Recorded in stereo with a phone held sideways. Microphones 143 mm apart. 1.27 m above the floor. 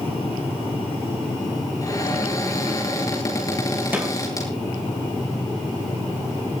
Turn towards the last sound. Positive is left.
turn(degrees=-15)  # may be behind; listen again after turning